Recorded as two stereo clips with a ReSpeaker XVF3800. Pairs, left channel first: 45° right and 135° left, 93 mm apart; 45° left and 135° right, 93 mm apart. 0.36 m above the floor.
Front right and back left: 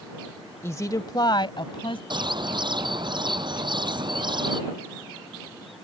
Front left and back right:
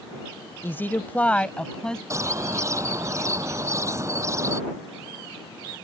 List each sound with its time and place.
0.6 s a woman speaking: straight ahead; by 2.0 s 35° right
2.1 s a bird: 170° left